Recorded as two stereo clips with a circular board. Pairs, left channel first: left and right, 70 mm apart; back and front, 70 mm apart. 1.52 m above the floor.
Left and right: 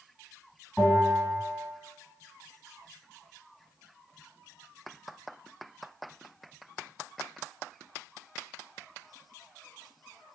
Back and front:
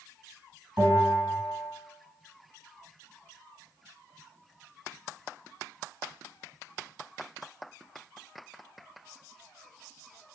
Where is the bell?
10° left, 1.7 m.